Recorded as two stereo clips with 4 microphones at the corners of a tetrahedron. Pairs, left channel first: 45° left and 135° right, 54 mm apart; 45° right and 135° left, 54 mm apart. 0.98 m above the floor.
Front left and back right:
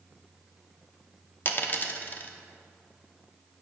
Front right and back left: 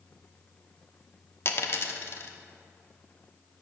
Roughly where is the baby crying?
I don't hear a baby crying.